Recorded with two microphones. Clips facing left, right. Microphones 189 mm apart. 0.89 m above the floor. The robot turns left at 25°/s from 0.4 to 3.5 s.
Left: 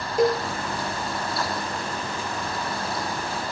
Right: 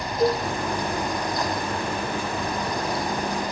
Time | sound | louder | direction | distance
0.2 | a cowbell | left 1 dB | 85° left | 5.5 m